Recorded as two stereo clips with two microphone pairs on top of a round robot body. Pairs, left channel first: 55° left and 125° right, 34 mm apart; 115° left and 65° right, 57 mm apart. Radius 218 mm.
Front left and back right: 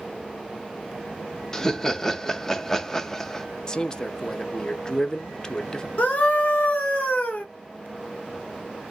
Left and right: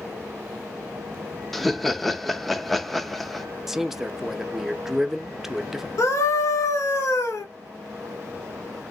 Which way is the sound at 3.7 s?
10° left.